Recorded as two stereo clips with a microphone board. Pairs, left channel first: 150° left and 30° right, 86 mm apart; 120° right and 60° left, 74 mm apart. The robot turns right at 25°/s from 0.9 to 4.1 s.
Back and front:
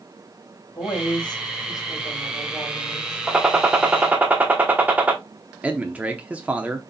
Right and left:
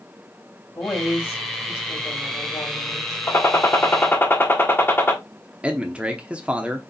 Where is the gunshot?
105° right, 1.1 m; by 5.2 s 85° right, 1.1 m.